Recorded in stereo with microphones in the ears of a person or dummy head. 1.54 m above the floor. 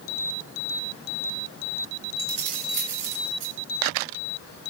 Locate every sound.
2.2 s keys jangling: 60° right (ahead or behind), 5 m; by 3.5 s 65° right (ahead or behind), 5.5 m